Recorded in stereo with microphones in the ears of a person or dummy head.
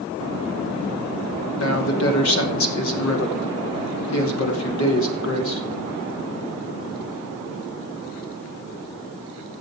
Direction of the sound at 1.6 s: 75° left (ahead or behind).